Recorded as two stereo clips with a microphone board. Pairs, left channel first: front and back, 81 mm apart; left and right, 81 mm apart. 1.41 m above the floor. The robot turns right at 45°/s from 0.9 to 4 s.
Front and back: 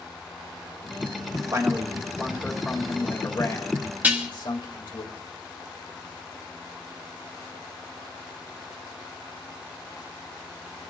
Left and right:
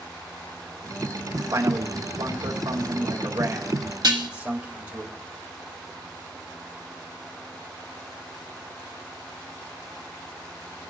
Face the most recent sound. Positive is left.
turn(degrees=-115)